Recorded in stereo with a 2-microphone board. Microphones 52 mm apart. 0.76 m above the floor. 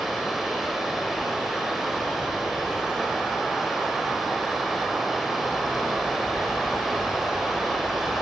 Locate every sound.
0.0 s running water: 5° right (ahead or behind), 1.2 m